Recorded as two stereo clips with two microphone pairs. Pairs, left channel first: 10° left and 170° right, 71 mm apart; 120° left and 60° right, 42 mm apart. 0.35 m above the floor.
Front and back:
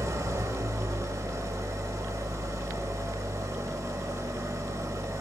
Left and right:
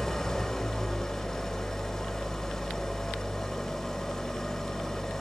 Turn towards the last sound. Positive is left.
turn(degrees=-165)